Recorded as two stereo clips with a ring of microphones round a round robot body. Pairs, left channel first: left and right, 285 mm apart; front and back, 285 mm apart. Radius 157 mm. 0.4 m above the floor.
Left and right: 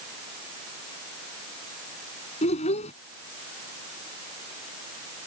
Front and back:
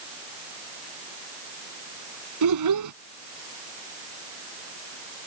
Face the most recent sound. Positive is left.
turn(degrees=160)